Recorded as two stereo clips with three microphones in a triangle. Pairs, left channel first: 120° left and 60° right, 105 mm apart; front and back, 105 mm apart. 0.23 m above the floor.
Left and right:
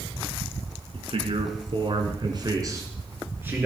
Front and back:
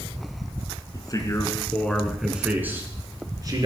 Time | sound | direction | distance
0.9 | a man speaking | 45° right | 2 m